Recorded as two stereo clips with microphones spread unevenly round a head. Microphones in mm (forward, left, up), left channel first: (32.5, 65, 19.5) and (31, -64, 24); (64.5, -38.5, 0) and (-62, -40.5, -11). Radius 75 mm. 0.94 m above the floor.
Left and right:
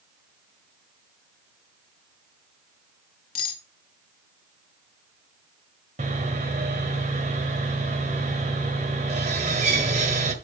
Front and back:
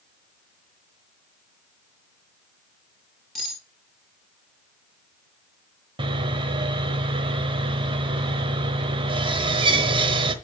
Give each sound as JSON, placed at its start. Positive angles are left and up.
{"t": 3.4, "sound": "cutlery clinking", "azimuth_deg": 90, "distance_m": 1.3}
{"t": 6.0, "sound": "sawing", "azimuth_deg": -130, "distance_m": 1.1}